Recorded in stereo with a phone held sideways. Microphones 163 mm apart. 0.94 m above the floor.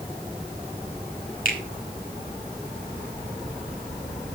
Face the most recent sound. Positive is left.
turn(degrees=55)  # may be behind; listen again after turning